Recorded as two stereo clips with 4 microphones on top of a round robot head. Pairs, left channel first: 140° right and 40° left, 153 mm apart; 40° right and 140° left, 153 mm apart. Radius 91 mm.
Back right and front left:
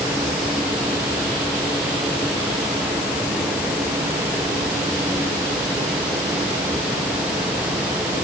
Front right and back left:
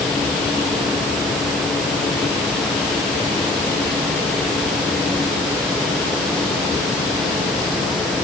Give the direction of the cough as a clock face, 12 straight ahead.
No cough in this recording.